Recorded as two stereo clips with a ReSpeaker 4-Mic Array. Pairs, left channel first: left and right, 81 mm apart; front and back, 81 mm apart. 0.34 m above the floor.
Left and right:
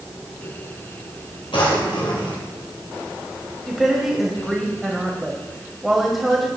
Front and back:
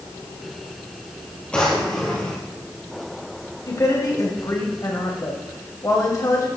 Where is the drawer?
80° left, 3 m.